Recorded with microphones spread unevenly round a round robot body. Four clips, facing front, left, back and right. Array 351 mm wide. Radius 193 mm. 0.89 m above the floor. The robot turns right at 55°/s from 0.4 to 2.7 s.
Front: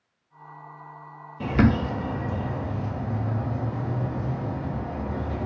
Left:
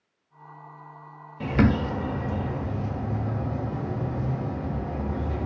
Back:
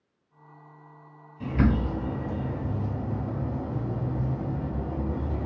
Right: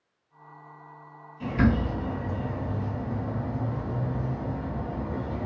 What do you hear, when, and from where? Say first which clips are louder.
1.4 s a bird: left 2 dB, front 4 dB; 30° left, 0.7 m; by 5.5 s 100° left, 0.7 m